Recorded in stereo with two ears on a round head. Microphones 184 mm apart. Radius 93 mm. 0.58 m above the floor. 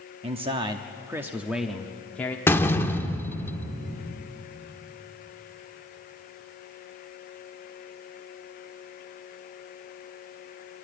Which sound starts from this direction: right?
A man speaking, at 0.2 s.